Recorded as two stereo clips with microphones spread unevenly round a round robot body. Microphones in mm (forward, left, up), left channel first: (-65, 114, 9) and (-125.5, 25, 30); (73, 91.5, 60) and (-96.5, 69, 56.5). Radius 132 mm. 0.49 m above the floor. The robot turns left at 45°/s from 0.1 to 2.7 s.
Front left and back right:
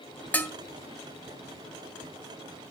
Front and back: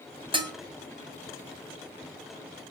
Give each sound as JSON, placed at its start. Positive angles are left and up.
{"t": 0.3, "sound": "dishes clattering", "azimuth_deg": 130, "distance_m": 1.4}